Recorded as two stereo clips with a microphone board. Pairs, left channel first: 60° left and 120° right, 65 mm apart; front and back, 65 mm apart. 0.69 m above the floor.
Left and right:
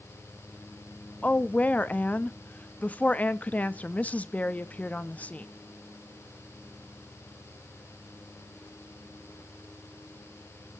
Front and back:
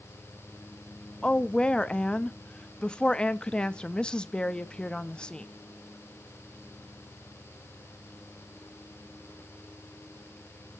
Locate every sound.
1.2 s a woman speaking: 50° left, 0.5 m